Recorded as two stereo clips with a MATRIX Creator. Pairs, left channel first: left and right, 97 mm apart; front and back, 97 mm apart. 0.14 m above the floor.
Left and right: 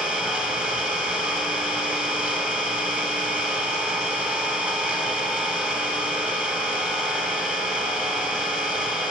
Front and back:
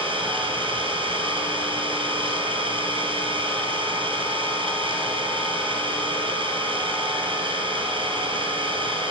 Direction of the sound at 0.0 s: 170° right.